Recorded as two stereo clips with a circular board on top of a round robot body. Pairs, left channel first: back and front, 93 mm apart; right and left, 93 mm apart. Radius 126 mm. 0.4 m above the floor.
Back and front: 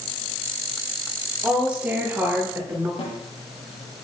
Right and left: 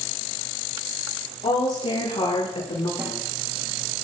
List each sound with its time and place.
1.4 s a woman speaking: 80° right, 10 m; by 2.9 s 70° right, 9.5 m
3.0 s a snare drum: 155° left, 6 m